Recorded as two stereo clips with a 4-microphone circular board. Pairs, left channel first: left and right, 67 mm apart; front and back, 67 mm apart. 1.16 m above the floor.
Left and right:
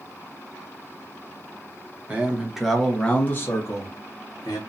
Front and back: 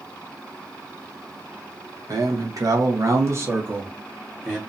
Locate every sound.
2.1 s a man speaking: 160° right, 0.9 m; by 4.6 s 105° left, 1.1 m